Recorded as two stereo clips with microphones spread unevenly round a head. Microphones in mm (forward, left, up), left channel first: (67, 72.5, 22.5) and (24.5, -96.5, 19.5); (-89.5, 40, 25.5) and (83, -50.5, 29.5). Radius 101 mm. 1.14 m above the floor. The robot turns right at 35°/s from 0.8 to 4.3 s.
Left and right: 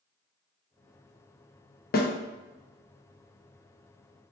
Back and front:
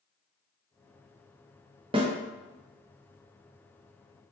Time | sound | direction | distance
1.9 | a snare drum | 40° left | 0.6 m